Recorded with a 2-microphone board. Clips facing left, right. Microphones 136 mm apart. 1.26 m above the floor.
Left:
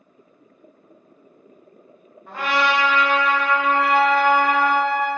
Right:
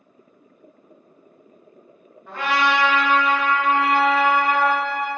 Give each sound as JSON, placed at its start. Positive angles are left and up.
{"t": 2.3, "sound": "a trumpet", "side_deg": 10, "distance_m": 1.3}
{"t": 3.7, "sound": "a trumpet", "side_deg": 35, "distance_m": 0.8}